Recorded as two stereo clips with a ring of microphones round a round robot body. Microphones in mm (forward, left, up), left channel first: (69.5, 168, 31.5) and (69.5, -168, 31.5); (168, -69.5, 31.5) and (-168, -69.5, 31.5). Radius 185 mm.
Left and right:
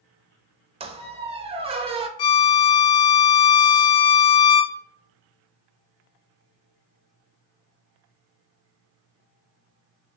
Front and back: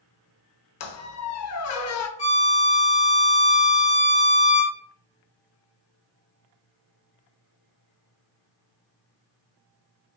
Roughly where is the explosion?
I don't hear an explosion.